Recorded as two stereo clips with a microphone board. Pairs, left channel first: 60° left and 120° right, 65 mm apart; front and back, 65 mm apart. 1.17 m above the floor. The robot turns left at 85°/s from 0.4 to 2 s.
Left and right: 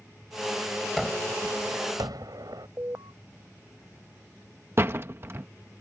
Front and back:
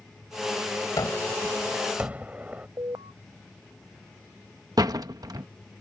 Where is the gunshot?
25° right; by 2.7 s 115° right.